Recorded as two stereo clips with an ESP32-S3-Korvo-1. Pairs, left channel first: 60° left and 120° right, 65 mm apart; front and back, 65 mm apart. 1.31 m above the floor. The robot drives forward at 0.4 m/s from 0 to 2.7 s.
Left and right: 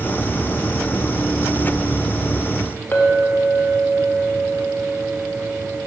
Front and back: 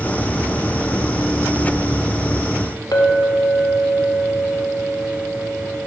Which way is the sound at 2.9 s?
5° left.